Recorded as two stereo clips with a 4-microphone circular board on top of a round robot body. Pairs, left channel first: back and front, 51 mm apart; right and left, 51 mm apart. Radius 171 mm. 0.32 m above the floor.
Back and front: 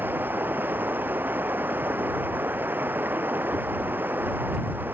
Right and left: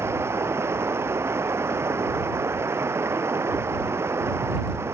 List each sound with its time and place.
0.0 s running water: 55° left